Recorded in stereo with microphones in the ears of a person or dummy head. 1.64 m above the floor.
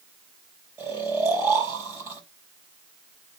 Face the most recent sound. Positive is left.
turn(degrees=-10)  # may be behind; listen again after turning